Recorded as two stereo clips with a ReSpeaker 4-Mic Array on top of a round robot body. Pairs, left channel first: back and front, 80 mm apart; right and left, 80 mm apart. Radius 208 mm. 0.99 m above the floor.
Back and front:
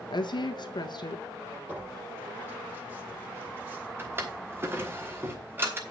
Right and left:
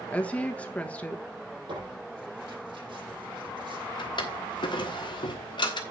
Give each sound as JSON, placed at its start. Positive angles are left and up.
{"t": 0.1, "sound": "a woman speaking", "azimuth_deg": -165, "distance_m": 1.6}
{"t": 1.7, "sound": "tearing paper", "azimuth_deg": 65, "distance_m": 6.0}
{"t": 4.0, "sound": "a drawer", "azimuth_deg": -65, "distance_m": 1.2}